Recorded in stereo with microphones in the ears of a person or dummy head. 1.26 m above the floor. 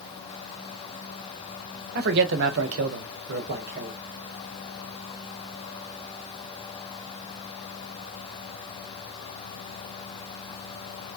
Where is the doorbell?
I don't hear a doorbell.